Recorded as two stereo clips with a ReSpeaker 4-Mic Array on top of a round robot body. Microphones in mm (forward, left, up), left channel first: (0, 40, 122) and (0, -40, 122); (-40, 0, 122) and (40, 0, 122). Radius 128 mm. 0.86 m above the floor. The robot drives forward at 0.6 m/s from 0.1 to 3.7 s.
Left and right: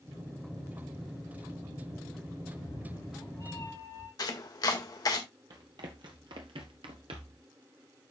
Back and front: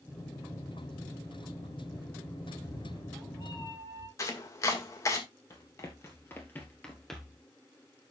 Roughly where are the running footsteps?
Behind right.